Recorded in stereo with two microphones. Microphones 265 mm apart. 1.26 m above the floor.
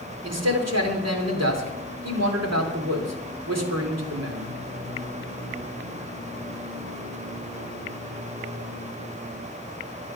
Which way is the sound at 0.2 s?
70° right (ahead or behind).